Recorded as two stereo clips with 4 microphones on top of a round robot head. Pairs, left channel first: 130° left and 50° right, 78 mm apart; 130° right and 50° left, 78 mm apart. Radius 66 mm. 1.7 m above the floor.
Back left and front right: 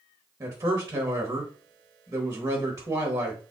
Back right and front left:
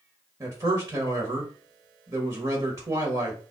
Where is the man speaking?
Straight ahead, 1.2 m.